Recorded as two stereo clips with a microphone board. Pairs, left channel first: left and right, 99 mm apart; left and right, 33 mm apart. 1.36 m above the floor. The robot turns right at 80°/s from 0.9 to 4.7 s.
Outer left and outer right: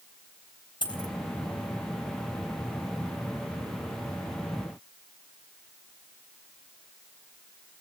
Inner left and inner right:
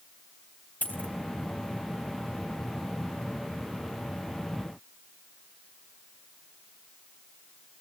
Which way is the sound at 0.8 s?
50° left (ahead or behind).